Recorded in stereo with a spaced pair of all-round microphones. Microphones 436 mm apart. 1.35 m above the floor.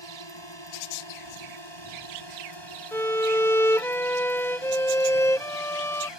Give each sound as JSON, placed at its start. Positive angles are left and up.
{"t": 0.0, "sound": "a drone", "side_deg": 85}
{"t": 2.9, "sound": "a violin", "side_deg": 5}